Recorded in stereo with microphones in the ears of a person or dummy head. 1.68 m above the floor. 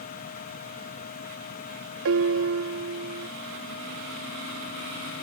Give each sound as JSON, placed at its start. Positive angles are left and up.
{"t": 0.0, "sound": "a fan", "side_deg": 50}
{"t": 2.0, "sound": "a piano", "side_deg": -65}